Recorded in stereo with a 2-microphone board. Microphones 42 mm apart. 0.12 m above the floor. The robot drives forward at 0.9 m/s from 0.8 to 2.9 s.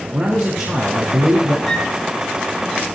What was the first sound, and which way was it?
A man speaking, 50° right (ahead or behind).